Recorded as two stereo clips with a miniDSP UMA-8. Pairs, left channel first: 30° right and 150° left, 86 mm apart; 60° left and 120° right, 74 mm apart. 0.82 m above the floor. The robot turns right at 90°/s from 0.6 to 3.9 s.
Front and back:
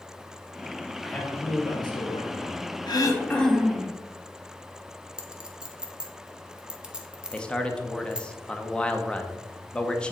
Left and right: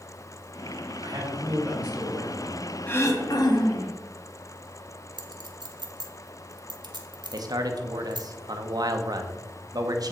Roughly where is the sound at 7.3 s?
Right.